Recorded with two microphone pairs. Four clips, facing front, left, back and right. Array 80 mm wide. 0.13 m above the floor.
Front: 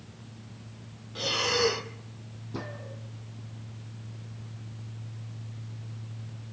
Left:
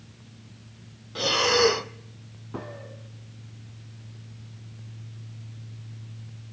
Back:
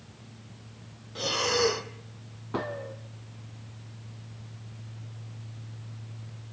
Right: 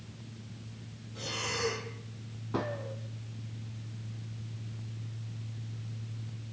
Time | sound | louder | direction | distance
1.1 | breathing | left 14 dB, back 1 dB | 100° left | 0.8 m
2.5 | a gunshot | right 3 dB, back 6 dB | 165° right | 2.5 m